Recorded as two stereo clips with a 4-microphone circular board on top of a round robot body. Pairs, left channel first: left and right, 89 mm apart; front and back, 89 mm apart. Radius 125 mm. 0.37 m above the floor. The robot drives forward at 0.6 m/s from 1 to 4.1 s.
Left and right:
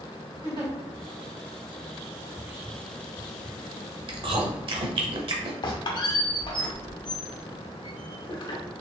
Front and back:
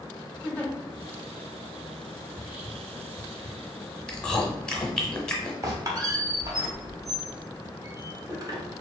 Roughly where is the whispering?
Behind right.